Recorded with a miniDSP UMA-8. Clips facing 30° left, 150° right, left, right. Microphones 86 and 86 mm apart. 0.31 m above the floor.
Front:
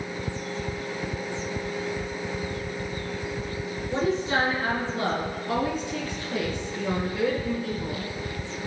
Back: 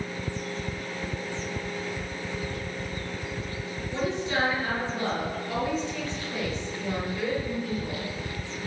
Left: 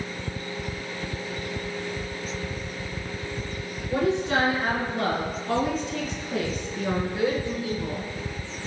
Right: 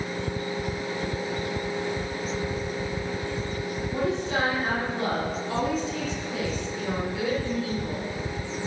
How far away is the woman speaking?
About 3.5 m.